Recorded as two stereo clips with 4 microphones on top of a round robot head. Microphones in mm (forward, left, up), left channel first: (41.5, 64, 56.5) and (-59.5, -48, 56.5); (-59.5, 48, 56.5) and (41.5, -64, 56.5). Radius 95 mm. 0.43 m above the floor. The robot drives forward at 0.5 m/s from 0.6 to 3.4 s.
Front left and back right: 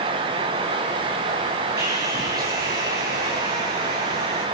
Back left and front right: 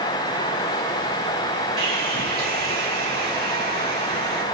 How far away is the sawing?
About 9.5 m.